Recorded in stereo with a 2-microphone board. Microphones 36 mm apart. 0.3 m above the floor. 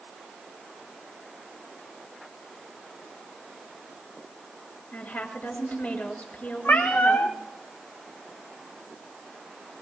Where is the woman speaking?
65° left (ahead or behind), 4.5 m.